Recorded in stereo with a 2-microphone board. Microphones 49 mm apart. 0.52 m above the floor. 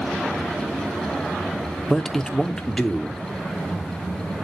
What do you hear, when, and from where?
1.9 s a man speaking: 10° left (ahead or behind), 1.0 m